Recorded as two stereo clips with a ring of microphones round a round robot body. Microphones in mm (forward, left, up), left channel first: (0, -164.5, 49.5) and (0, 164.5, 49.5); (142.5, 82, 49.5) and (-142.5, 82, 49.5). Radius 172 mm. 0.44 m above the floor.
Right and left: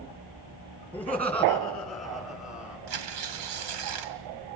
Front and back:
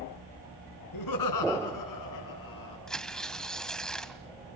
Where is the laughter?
5° right, 6.5 m; by 2.8 s 5° left, 8 m.